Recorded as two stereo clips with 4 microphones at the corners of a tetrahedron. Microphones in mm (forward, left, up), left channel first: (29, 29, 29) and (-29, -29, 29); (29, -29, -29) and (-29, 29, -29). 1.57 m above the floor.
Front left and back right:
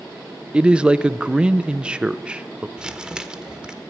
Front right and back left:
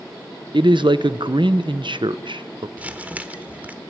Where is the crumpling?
170° left, 1.2 m.